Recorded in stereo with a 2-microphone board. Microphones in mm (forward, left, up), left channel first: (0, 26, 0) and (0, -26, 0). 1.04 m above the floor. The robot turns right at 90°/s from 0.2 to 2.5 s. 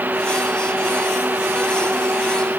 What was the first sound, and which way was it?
Only background noise.